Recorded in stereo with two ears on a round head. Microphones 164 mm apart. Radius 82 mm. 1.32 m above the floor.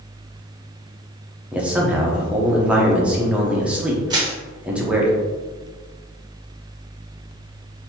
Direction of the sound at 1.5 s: 5° right (ahead or behind).